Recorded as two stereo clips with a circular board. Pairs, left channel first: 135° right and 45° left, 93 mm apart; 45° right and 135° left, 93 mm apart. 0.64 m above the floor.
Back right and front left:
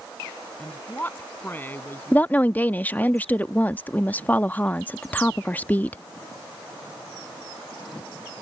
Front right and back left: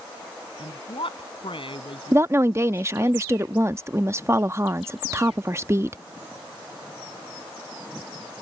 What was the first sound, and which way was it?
A woman speaking, 65° right.